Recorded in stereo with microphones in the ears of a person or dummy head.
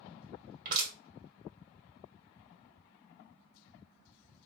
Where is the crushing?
45° right (ahead or behind), 2 m.